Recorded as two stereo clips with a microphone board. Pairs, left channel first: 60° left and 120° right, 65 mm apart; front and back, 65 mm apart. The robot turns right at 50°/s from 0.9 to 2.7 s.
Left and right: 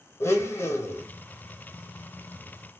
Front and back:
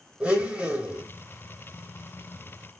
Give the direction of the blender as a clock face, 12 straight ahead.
8 o'clock.